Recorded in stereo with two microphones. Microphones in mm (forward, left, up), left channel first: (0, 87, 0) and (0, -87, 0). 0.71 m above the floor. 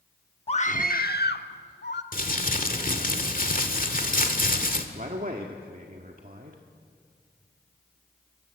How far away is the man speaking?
About 1.7 m.